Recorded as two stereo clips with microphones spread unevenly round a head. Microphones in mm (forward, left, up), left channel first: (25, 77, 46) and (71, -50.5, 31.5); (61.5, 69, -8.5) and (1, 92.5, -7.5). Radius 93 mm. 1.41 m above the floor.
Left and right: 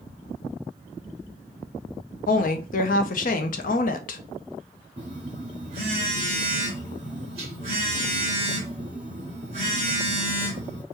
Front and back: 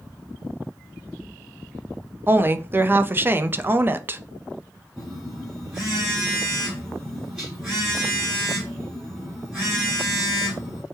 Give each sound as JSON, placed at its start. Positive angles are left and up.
{"t": 2.3, "sound": "a woman speaking", "azimuth_deg": 100, "distance_m": 0.6}
{"t": 5.0, "sound": "a phone buzzing", "azimuth_deg": -125, "distance_m": 1.3}